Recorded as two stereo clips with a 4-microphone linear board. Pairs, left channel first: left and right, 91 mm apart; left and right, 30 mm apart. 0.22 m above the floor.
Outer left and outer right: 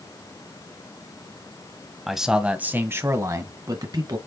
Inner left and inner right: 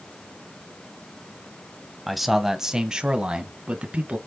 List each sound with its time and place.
2.1 s a man speaking: centre (ahead or behind), 1.3 m; by 4.2 s 50° right (ahead or behind), 2 m